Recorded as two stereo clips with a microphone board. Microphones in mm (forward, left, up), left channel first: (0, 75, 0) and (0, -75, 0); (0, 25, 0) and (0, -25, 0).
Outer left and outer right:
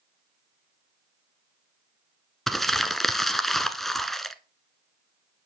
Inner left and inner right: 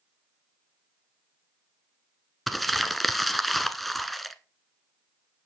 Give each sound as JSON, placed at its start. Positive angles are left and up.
{"t": 2.5, "sound": "crumpling", "side_deg": 0, "distance_m": 1.0}